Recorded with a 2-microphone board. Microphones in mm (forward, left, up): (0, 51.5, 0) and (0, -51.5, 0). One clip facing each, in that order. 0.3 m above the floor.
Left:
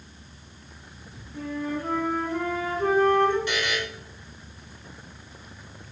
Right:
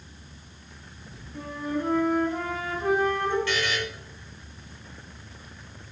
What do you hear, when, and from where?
1.3 s a flute: 15° right (ahead or behind), 1.6 m
3.5 s a buzzer: 20° left (ahead or behind), 1.0 m